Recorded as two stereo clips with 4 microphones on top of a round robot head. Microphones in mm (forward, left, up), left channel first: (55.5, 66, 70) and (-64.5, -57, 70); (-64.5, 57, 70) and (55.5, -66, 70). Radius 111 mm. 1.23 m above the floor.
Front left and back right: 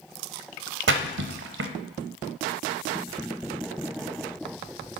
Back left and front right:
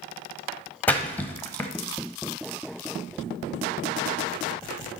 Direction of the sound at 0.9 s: 145° right.